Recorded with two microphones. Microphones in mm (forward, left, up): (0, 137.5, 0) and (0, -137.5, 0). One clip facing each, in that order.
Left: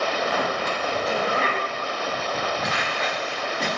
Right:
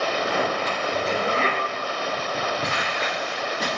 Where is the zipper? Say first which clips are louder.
Right 1 dB; 30° right (ahead or behind), 0.9 m.